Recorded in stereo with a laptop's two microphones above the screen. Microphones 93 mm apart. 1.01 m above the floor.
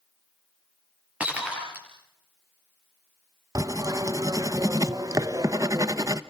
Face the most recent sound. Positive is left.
turn(degrees=-40)  # may be behind; listen again after turning